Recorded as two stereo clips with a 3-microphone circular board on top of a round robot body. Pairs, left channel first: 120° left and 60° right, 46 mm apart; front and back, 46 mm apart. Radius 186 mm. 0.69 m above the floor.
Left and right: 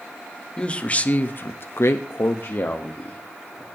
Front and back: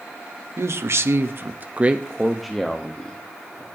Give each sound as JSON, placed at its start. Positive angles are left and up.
{"t": 0.6, "sound": "a man speaking", "azimuth_deg": -175, "distance_m": 1.5}